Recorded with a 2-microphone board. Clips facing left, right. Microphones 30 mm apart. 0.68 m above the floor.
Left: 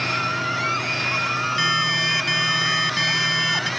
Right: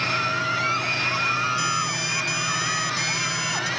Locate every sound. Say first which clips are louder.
1.6 s an alarm: left 5 dB; 45° left (ahead or behind)